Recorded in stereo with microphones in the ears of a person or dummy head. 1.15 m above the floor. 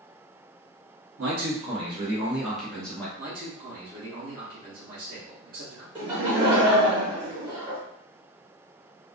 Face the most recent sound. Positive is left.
turn(degrees=-25)  # may be behind; listen again after turning